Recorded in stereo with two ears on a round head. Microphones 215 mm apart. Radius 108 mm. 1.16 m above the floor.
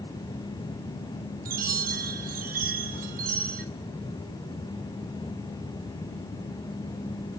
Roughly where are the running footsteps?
I don't hear running footsteps.